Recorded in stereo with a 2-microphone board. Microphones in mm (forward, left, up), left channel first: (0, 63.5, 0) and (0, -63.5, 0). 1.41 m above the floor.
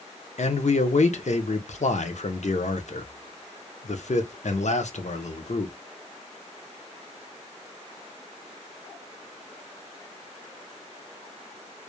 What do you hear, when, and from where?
0.4 s a man speaking: 65° left (ahead or behind), 0.5 m